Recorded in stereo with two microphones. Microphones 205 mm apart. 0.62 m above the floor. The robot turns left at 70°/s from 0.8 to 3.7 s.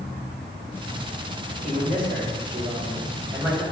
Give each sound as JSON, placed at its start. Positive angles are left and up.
{"t": 1.6, "sound": "a man speaking", "azimuth_deg": -40, "distance_m": 3.0}